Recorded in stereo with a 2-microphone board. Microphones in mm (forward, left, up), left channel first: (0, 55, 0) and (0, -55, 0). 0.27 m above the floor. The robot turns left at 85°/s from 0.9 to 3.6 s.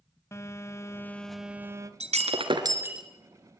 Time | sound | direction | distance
0.3 | a phone buzzing | 40° left | 1.4 m
2.0 | breaking glass | 90° right | 2 m